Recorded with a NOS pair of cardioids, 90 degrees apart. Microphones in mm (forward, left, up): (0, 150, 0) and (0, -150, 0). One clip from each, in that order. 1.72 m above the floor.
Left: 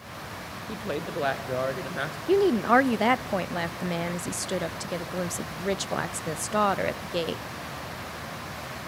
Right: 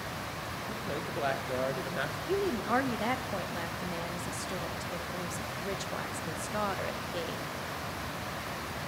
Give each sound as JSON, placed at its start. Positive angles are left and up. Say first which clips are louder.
{"t": 0.7, "sound": "a woman speaking", "louder": "left 6 dB", "azimuth_deg": 40, "distance_m": 1.3}
{"t": 2.3, "sound": "a woman speaking", "louder": "left 11 dB", "azimuth_deg": 40, "distance_m": 0.5}